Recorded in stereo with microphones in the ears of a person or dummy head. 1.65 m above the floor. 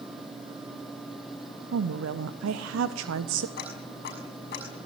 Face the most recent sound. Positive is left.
turn(degrees=60)  # may be behind; listen again after turning